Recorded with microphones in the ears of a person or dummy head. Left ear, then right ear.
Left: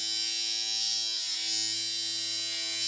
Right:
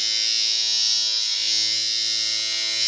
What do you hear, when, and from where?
0.0 s a machine running: 40° right (ahead or behind), 0.7 m